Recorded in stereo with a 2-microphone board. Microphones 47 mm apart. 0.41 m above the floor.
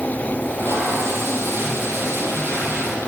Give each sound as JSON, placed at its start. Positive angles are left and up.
{"t": 0.4, "sound": "tape being pulled", "side_deg": -55, "distance_m": 2.5}